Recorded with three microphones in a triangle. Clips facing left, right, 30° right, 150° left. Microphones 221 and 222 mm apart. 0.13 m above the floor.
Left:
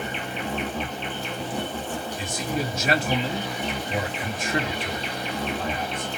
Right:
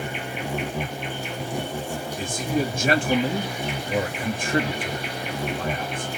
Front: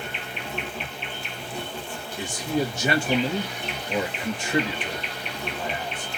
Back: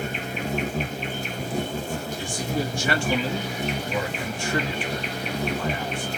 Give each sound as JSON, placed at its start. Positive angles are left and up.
{"t": 0.0, "sound": "an insect", "azimuth_deg": -165, "distance_m": 1.5}
{"t": 2.2, "sound": "a man speaking", "azimuth_deg": -90, "distance_m": 2.5}